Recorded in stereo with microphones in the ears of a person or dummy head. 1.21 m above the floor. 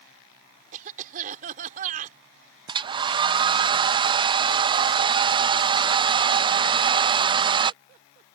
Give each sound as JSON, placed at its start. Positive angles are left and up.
{"t": 0.7, "sound": "a cough", "side_deg": -45}
{"t": 2.7, "sound": "a hair dryer", "side_deg": -25}